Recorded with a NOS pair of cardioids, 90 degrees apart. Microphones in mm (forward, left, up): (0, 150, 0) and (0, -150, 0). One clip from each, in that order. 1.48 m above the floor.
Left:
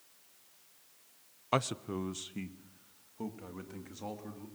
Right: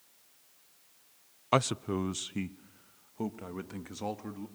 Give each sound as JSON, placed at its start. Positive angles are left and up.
{"t": 1.5, "sound": "a man speaking", "azimuth_deg": -15, "distance_m": 0.6}